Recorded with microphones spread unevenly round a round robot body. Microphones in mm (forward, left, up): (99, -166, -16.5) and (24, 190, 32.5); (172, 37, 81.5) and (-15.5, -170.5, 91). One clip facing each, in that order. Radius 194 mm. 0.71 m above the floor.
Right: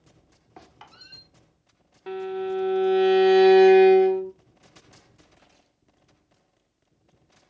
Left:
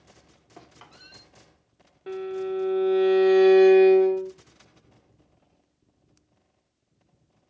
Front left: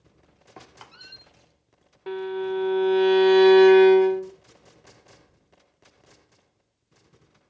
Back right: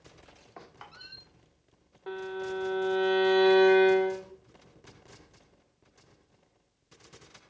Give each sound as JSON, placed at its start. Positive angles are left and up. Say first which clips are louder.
{"t": 0.6, "sound": "a squeak", "louder": "even, front left 2 dB", "azimuth_deg": 0, "distance_m": 1.2}
{"t": 2.1, "sound": "a violin", "louder": "right 1 dB, front left 7 dB", "azimuth_deg": 0, "distance_m": 0.7}